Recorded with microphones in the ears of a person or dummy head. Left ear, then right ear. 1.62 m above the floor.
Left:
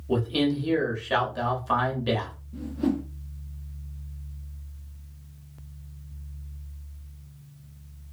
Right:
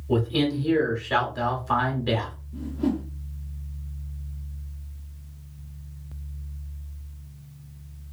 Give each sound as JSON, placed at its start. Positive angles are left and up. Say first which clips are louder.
{"t": 0.1, "sound": "a man speaking", "louder": "right 1 dB", "side_deg": 30, "distance_m": 1.0}
{"t": 2.5, "sound": "a whoosh", "louder": "even", "side_deg": 20, "distance_m": 0.5}